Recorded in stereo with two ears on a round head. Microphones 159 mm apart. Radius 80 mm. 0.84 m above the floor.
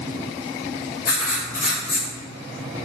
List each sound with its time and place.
1.1 s writing: 50° left (ahead or behind), 1.0 m